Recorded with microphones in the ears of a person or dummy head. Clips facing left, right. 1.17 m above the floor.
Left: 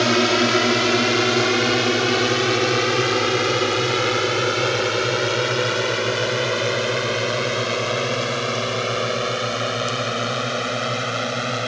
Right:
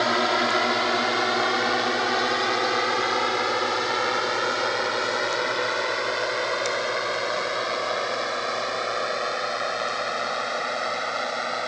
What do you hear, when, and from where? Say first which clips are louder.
0.0 s a drone: left 6 dB; 35° left (ahead or behind); by 11.7 s 40° left (ahead or behind)